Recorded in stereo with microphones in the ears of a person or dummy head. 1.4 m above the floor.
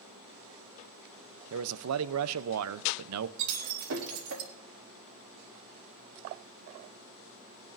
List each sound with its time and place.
1.5 s a man speaking: 80° right, 0.6 m
3.4 s breaking glass: 70° right (ahead or behind), 2.5 m